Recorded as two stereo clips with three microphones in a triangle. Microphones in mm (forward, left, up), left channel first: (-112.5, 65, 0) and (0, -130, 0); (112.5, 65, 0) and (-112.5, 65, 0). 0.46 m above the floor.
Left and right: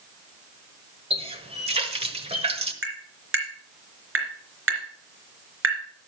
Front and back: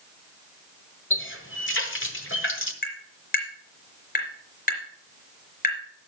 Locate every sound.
1.1 s a running tap: straight ahead, 1.3 m
2.8 s tapping: 50° right, 3.5 m